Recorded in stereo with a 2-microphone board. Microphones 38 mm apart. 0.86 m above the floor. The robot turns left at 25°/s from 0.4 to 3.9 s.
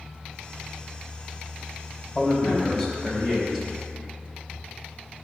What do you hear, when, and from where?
2.1 s a man speaking: 15° left, 4 m; by 3.6 s 25° right, 4 m